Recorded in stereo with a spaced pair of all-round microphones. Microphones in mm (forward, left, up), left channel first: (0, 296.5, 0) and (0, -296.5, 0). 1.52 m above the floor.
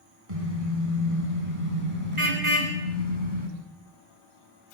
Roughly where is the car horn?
Right.